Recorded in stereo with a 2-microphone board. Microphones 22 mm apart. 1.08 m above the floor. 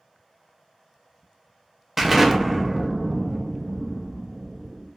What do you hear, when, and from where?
2.0 s an explosion: 10° right (ahead or behind), 0.5 m